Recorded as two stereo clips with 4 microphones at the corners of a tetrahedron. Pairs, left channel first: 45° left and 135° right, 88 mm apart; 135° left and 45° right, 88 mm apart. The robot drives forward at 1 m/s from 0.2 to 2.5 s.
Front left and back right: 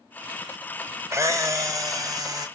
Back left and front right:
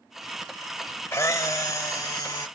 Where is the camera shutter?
Straight behind, 0.7 m.